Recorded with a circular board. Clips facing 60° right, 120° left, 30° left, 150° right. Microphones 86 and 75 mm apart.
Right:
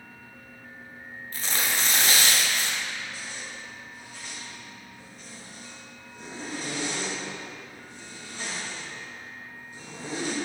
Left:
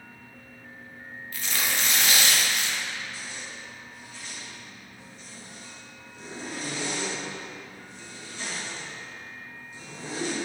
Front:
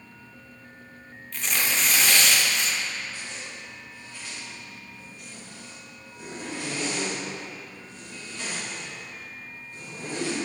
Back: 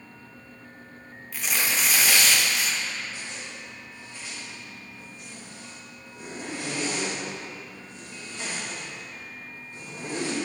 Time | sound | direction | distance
1.3 | tearing paper | 70° right | 0.6 m
3.1 | a zipper | 85° right | 1.5 m